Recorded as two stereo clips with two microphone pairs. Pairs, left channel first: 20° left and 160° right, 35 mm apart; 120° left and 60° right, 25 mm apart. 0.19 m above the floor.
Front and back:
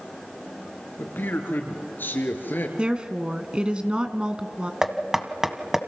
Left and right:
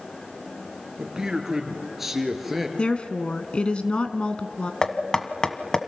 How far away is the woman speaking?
About 1.8 m.